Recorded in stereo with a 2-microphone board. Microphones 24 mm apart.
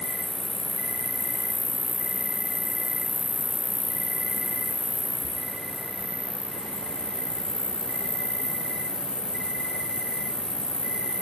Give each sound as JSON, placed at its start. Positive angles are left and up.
{"t": 0.0, "sound": "an insect", "side_deg": -50, "distance_m": 0.8}